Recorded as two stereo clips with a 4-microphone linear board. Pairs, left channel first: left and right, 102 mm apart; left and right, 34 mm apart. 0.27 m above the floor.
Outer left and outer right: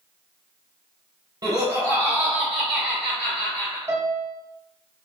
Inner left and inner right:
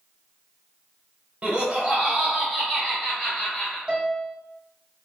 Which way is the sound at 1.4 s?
35° right (ahead or behind).